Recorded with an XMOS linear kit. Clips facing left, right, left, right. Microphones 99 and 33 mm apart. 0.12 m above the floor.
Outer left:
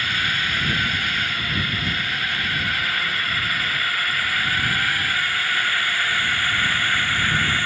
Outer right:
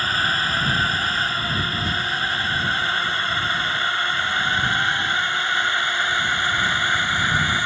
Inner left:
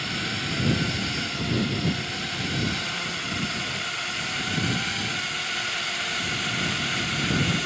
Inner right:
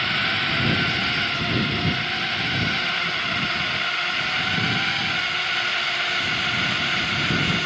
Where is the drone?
35° right (ahead or behind); by 7.7 s 20° right (ahead or behind).